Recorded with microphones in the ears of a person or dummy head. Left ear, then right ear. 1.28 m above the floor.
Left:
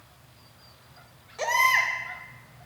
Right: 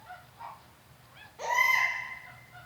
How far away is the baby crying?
About 2.5 m.